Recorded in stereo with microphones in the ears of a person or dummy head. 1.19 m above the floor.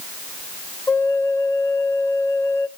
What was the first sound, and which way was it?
A flute, 10° left (ahead or behind).